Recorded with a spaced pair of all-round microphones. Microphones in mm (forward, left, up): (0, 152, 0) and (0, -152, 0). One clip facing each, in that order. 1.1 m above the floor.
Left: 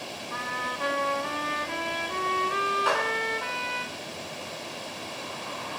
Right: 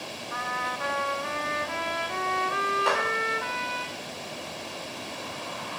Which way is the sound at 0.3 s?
40° left (ahead or behind).